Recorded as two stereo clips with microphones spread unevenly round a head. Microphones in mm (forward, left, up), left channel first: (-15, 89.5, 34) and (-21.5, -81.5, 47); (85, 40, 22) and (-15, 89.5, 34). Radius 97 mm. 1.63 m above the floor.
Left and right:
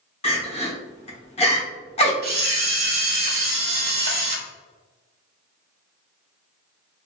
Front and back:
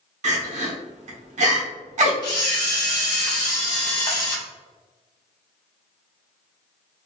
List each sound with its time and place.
0.2 s crying: 145° left, 1.0 m
2.2 s a camera shutter: 75° right, 0.9 m